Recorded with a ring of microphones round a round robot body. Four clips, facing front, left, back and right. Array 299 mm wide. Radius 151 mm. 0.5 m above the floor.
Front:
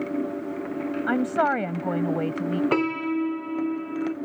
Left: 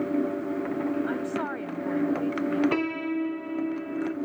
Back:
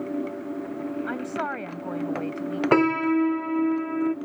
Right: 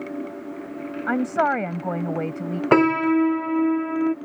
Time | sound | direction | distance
1.1 | a woman speaking | 55° right | ?
2.7 | a piano | 110° right | ?